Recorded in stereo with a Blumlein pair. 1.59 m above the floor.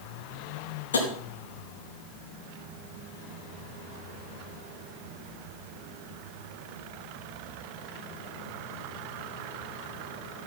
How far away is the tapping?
About 3 m.